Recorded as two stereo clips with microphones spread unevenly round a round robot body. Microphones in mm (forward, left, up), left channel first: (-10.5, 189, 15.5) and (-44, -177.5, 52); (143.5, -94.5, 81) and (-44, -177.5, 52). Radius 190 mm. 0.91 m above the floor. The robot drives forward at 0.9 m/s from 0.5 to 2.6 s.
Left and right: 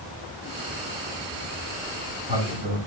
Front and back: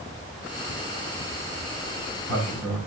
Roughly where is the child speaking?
I don't hear a child speaking.